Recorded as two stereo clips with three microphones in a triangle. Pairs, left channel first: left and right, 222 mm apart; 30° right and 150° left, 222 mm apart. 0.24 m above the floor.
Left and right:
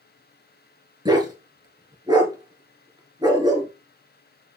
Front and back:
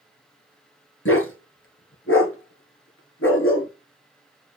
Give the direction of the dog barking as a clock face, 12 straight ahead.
1 o'clock.